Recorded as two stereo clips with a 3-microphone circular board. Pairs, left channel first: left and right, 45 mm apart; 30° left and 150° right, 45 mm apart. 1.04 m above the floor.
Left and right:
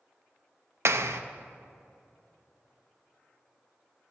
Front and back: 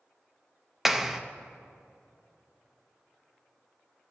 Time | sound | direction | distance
0.8 | a clap | 65° right | 0.6 m